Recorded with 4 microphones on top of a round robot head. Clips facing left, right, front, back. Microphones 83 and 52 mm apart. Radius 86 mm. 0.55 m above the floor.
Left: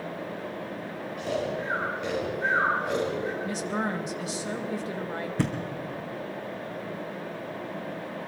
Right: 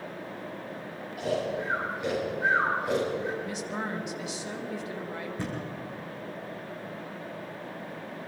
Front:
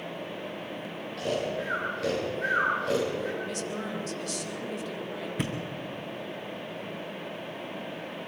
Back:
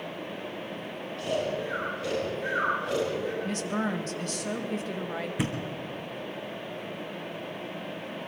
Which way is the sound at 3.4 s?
135° left.